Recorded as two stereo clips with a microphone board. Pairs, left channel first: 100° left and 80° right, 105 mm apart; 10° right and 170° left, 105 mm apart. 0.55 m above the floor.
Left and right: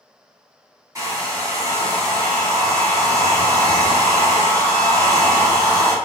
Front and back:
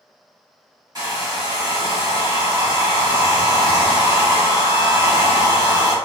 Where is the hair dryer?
135° right, 0.9 m.